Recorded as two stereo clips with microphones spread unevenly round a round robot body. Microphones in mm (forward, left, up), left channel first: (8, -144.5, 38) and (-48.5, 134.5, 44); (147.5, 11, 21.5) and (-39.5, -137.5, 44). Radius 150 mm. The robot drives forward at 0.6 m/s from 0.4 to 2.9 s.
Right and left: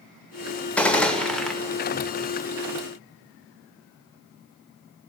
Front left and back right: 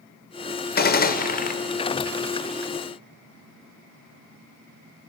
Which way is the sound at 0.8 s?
5° left.